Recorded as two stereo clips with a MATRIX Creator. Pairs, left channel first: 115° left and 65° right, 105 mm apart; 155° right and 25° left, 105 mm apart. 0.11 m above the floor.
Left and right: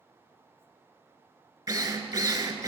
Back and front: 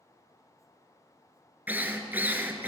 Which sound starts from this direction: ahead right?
A drill, at 1.7 s.